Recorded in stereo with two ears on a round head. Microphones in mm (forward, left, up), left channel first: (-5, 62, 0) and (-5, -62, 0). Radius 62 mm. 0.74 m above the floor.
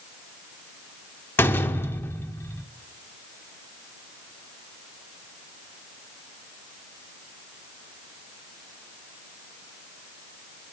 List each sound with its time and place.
1.4 s a door slam: 20° left (ahead or behind), 1.4 m